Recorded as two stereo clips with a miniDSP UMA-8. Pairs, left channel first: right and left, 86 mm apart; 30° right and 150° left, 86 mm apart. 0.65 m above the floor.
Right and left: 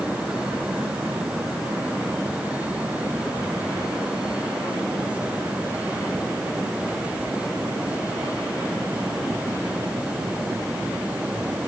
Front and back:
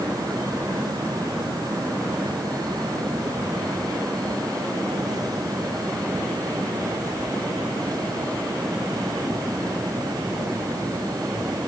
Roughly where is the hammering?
No hammering in this recording.